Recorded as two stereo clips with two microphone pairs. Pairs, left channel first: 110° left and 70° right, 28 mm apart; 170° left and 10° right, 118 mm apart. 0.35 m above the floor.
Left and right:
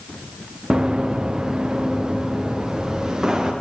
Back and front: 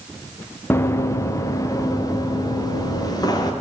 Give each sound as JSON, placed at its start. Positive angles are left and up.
{"t": 0.7, "sound": "running footsteps", "azimuth_deg": -125, "distance_m": 1.2}